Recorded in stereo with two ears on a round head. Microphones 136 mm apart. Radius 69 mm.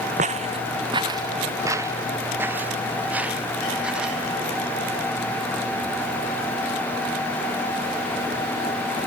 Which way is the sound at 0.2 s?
50° right (ahead or behind).